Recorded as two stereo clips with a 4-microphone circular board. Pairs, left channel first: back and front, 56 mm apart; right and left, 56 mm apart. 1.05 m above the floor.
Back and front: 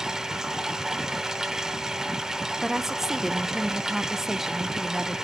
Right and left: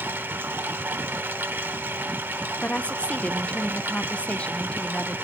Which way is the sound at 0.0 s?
75° left.